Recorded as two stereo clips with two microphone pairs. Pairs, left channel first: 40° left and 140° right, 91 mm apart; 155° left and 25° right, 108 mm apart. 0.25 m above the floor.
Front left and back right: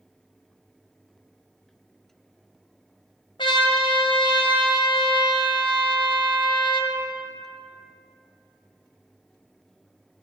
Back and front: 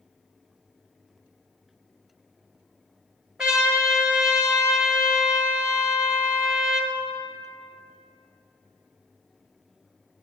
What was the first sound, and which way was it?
A trumpet, 60° left.